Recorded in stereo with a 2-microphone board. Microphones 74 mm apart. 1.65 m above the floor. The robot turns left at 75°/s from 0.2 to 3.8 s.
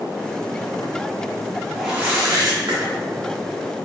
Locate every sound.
1.8 s a whoosh: 5° right, 1.2 m; by 2.8 s 85° right, 1.2 m